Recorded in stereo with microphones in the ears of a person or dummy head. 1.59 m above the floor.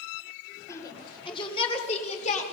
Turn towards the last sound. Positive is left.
turn(degrees=40)  # may be behind; listen again after turning